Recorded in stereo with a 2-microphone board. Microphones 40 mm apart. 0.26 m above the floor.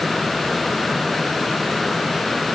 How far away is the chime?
No chime in this recording.